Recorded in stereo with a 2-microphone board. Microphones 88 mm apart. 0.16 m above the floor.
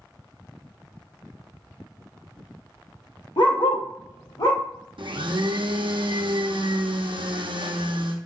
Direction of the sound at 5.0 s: 85° right.